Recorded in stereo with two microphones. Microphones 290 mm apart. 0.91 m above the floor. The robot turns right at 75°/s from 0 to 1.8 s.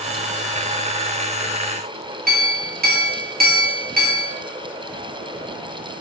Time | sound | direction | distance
2.3 | a clink | 35° right (ahead or behind) | 0.7 m